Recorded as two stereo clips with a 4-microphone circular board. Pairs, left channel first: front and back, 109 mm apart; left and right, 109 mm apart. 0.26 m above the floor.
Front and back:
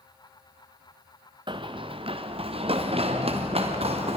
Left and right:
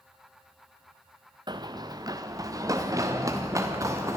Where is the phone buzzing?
I don't hear a phone buzzing.